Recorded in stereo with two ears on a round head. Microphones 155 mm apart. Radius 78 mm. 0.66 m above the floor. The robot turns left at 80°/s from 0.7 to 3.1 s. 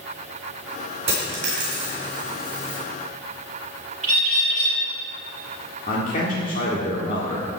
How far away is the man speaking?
About 1.7 m.